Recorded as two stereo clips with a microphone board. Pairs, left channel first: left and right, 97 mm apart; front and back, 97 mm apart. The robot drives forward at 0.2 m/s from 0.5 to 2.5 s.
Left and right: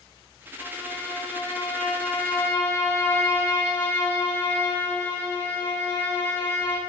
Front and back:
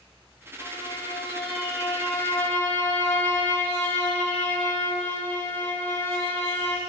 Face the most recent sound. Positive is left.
turn(degrees=50)